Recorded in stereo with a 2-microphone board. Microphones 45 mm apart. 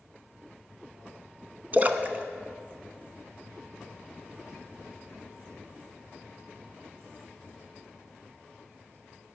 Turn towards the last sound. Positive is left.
turn(degrees=-35)  # may be behind; listen again after turning